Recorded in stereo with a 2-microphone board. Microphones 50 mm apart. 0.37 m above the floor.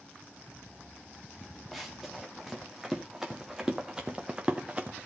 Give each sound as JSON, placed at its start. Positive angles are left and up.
{"t": 1.7, "sound": "running footsteps", "side_deg": -5, "distance_m": 3.0}